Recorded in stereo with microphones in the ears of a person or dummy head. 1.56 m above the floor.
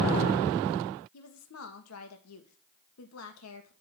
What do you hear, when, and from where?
1.1 s a woman speaking: 80° left, 1.7 m